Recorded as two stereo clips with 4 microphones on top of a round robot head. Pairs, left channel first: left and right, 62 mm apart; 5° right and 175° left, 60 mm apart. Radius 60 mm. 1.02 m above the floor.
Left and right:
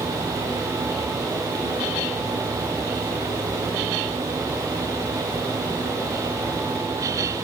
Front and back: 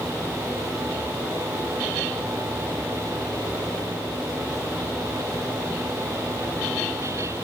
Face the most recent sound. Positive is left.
No sound to turn to.